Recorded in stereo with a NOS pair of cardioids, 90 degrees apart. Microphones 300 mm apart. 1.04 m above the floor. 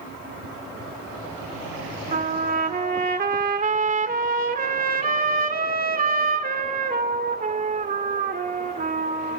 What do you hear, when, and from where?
2.1 s a trumpet: 30° right, 1.9 m